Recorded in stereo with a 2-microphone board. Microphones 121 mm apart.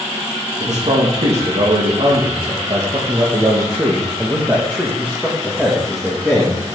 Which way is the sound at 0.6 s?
70° right (ahead or behind).